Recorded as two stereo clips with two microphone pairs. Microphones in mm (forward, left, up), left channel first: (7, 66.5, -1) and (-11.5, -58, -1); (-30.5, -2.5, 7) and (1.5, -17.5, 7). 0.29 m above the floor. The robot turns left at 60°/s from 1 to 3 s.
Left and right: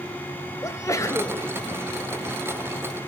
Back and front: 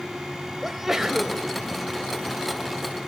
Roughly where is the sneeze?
Ahead left.